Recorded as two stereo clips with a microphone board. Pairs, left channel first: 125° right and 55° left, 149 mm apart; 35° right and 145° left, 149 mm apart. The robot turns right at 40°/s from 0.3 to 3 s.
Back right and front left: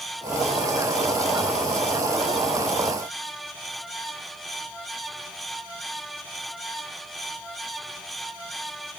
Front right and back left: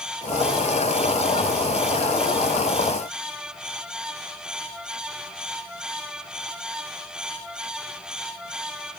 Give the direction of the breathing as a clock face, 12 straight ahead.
No breathing in this recording.